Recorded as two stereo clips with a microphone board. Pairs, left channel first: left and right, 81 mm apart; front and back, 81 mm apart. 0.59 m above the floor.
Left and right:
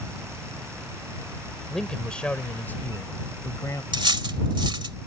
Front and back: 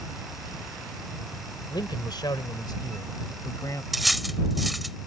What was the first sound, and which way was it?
A man speaking, 5° left.